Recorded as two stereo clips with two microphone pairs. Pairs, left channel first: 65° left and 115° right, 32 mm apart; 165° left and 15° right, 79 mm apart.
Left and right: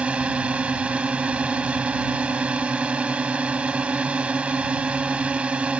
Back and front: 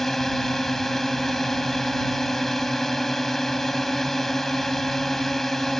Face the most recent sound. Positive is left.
turn(degrees=-110)